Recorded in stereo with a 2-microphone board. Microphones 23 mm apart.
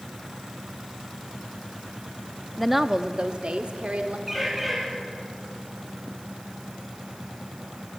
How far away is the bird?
About 5 m.